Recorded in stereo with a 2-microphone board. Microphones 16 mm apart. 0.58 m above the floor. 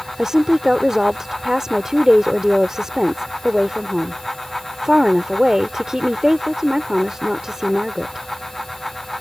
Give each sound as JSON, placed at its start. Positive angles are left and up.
{"t": 0.2, "sound": "a woman speaking", "side_deg": -40}